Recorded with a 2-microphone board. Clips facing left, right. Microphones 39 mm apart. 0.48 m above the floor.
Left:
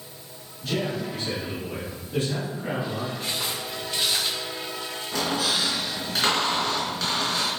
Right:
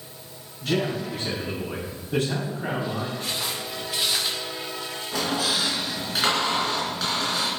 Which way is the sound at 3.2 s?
5° left (ahead or behind).